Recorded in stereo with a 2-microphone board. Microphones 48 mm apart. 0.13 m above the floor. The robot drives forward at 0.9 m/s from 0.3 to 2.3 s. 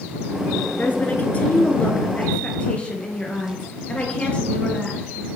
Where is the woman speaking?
40° left (ahead or behind), 1.4 m; by 5.0 s 25° left (ahead or behind), 2 m.